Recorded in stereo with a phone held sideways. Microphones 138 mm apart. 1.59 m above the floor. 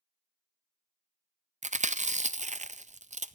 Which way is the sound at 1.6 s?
65° right (ahead or behind).